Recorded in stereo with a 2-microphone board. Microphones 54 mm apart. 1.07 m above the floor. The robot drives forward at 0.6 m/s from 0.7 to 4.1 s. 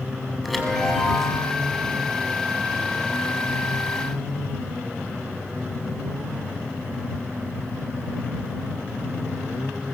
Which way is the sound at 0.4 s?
Centre (ahead or behind).